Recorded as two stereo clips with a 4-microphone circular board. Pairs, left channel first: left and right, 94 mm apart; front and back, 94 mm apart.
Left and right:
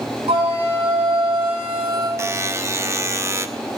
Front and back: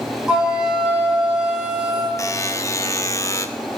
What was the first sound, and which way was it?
A flute, 100° right.